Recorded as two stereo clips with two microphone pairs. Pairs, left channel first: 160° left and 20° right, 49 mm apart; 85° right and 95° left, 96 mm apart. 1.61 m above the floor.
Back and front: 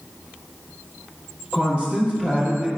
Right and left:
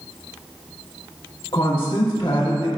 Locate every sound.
1.5 s a woman speaking: 135° right, 1.6 m